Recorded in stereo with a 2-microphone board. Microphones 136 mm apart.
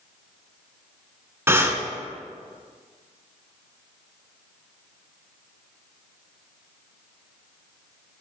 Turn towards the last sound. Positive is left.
turn(degrees=-20)  # may be behind; listen again after turning